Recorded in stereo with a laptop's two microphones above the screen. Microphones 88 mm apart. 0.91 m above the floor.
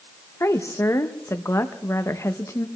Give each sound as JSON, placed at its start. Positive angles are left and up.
{"t": 0.4, "sound": "a woman speaking", "side_deg": 30, "distance_m": 0.8}